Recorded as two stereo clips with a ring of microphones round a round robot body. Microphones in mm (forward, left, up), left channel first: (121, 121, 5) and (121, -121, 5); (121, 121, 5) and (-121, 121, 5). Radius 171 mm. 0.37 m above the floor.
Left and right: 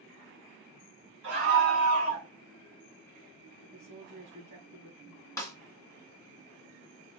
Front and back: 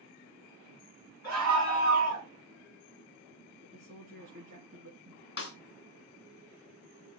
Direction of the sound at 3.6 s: 130° right.